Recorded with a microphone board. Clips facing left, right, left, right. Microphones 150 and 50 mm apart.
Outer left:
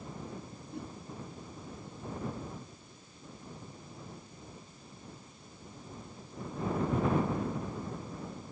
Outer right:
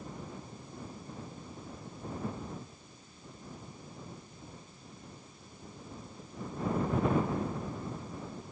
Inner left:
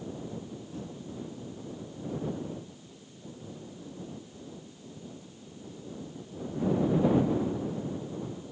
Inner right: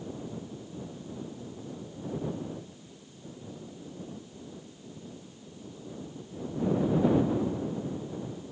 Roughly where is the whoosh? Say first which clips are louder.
Outer left 4 dB, inner left 2 dB; left.